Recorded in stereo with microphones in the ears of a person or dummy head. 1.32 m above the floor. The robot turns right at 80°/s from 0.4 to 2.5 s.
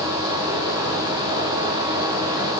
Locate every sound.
Only background noise.